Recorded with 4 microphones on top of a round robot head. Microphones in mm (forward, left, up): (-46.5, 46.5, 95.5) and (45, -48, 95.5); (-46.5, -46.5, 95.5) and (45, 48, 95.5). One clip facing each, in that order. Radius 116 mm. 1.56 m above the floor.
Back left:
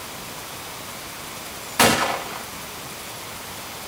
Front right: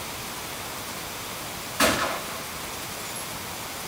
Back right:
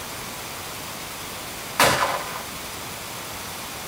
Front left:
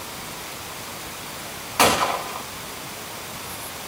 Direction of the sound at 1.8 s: 120° left.